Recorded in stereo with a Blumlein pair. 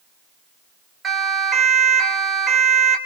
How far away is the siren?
About 4.5 m.